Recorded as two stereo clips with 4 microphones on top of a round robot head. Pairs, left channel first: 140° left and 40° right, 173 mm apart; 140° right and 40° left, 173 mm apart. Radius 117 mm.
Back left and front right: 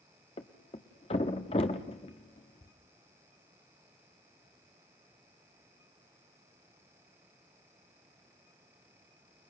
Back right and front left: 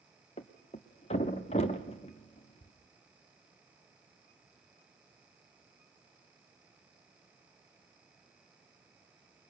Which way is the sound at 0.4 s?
Straight behind.